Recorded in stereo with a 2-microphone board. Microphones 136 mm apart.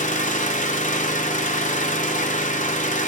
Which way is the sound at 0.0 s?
70° left (ahead or behind).